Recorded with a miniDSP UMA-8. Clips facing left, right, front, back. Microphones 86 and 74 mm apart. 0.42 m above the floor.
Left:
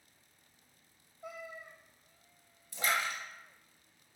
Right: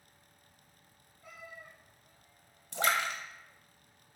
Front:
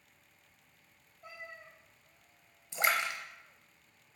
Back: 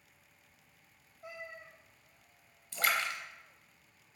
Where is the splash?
70° right, 0.6 m.